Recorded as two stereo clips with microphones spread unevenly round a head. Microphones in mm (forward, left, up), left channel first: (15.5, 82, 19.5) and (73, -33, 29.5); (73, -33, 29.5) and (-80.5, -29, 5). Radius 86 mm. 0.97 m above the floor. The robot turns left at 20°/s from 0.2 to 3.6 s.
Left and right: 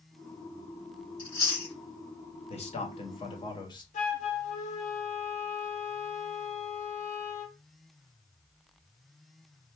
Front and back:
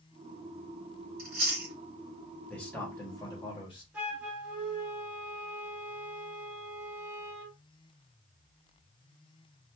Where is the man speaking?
85° left, 1.5 m; by 3.8 s 65° left, 1.5 m.